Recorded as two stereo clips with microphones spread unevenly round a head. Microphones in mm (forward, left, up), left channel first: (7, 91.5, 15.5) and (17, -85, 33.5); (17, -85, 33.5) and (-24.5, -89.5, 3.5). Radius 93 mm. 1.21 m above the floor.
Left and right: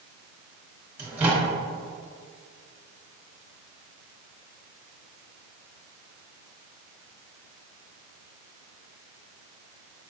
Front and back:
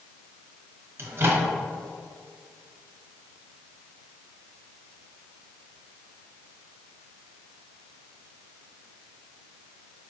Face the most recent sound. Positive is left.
turn(degrees=-170)